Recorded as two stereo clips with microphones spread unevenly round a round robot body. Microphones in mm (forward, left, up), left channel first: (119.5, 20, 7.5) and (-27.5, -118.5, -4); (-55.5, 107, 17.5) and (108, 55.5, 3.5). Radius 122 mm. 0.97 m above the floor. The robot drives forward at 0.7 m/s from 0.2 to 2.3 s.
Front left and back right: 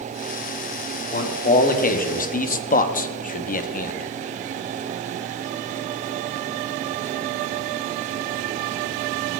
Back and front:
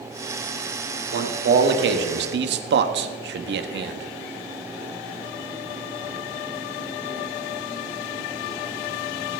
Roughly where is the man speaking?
Ahead.